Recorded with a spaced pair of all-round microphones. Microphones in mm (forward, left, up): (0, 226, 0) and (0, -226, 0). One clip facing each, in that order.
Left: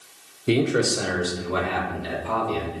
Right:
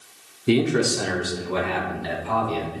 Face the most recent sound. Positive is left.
turn(degrees=-5)  # may be behind; listen again after turning